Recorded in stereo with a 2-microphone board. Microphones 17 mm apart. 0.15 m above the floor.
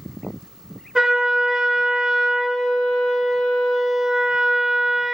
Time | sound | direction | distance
0.9 | a trumpet | 45° right (ahead or behind) | 1.1 m